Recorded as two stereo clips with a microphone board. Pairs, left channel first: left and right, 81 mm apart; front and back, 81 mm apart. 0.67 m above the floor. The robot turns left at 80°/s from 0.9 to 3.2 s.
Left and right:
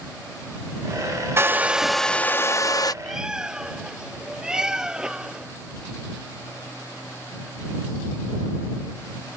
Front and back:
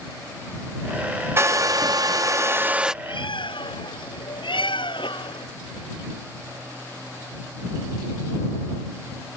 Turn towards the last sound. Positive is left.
turn(degrees=-10)